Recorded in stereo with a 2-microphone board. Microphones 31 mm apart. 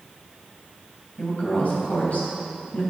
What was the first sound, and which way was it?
A woman speaking, 60° left (ahead or behind).